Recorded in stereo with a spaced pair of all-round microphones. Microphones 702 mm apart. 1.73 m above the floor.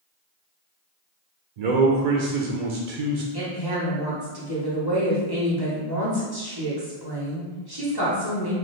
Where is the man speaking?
70° right (ahead or behind), 0.6 m.